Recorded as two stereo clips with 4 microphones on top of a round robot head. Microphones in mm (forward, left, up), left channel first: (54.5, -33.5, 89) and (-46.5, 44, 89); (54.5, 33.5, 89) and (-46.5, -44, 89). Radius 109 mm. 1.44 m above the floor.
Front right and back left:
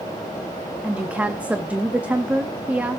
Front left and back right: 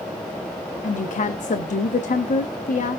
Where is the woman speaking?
65° left, 0.8 m.